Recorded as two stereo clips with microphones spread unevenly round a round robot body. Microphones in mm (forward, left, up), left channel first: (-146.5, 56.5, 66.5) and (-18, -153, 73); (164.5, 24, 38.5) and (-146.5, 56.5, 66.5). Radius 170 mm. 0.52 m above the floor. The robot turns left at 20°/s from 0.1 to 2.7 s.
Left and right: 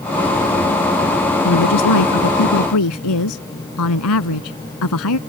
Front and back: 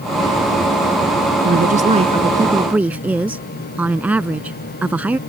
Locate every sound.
1.4 s a woman speaking: 115° left; by 5.2 s 90° left